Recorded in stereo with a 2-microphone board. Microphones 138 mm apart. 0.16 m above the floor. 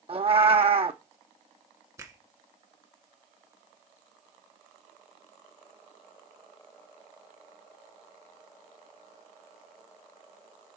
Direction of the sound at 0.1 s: 45° right (ahead or behind).